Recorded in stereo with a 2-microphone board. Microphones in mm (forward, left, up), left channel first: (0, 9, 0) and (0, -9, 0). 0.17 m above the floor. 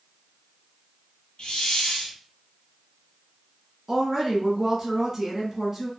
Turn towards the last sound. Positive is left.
turn(degrees=-20)  # may be behind; listen again after turning